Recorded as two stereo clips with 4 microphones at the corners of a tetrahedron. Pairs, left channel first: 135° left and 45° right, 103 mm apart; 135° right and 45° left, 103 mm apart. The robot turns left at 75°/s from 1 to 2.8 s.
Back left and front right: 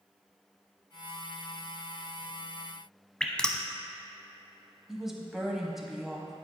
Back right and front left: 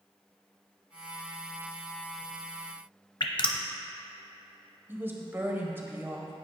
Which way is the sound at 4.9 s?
35° left.